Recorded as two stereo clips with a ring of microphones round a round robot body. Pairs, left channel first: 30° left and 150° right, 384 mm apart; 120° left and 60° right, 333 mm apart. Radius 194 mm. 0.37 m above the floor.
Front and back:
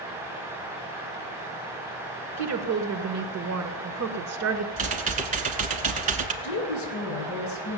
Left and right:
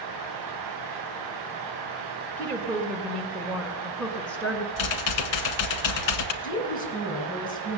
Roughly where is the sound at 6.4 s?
Ahead left.